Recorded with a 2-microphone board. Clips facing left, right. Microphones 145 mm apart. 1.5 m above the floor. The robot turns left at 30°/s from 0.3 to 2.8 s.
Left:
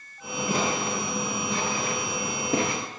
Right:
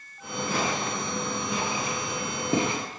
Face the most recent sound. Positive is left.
turn(degrees=-20)  # may be behind; listen again after turning